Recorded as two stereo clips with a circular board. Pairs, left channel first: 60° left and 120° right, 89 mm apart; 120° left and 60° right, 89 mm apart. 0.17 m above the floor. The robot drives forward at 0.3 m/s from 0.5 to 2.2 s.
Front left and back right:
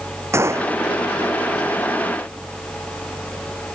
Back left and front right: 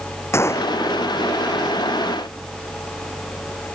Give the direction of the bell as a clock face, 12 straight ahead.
I don't hear a bell.